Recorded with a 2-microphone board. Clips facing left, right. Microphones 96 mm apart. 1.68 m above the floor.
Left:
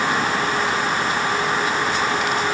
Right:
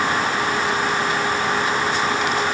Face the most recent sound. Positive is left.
No sound to turn to.